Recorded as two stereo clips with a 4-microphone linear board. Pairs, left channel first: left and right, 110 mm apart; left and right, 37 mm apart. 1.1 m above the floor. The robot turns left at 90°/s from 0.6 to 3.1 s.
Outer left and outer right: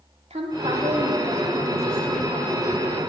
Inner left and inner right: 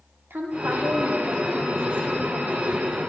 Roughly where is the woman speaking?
Right.